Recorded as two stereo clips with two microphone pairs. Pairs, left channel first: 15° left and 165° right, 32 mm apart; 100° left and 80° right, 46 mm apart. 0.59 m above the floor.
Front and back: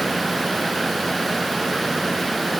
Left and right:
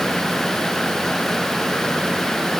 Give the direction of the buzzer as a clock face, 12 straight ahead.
I don't hear a buzzer.